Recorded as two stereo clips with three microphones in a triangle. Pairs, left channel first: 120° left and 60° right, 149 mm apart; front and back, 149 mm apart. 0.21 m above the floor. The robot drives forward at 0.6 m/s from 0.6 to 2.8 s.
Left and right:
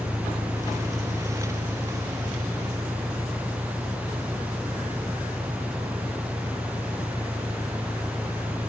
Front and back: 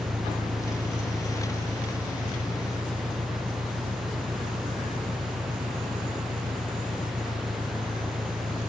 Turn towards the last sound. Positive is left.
turn(degrees=-160)